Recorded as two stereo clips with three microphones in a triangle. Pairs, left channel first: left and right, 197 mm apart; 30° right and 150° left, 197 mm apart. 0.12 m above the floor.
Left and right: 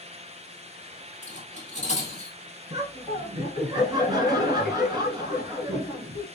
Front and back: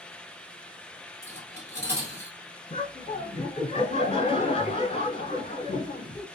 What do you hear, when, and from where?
1.2 s cutlery clinking: 140° left, 1.8 m
2.7 s laughter: 45° right, 1.2 m